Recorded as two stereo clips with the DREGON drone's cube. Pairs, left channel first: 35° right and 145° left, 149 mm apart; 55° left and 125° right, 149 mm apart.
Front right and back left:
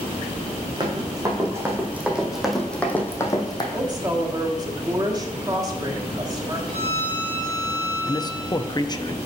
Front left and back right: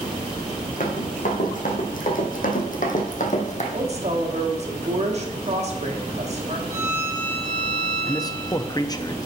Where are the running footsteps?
85° left, 2.5 m; by 3.6 s 25° left, 1.6 m.